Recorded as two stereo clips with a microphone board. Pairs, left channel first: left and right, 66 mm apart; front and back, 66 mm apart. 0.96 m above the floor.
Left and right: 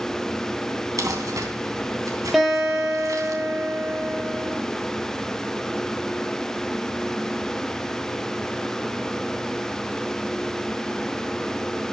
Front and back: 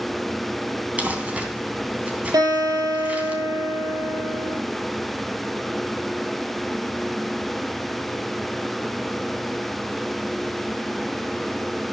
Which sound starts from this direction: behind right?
Crumpling, at 1.0 s.